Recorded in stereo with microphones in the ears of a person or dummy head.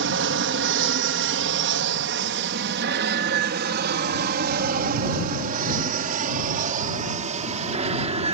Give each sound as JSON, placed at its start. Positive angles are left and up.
{"t": 0.0, "sound": "an aircraft", "side_deg": -60}